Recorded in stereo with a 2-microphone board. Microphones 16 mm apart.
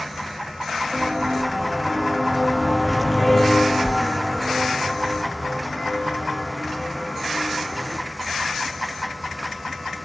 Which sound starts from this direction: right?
Footsteps, at 0.9 s.